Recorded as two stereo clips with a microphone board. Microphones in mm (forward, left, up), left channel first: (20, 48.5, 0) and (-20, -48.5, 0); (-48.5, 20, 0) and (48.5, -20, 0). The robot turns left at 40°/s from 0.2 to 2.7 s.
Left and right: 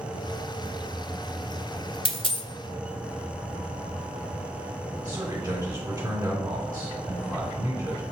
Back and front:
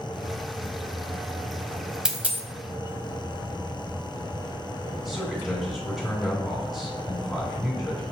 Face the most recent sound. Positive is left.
turn(degrees=-110)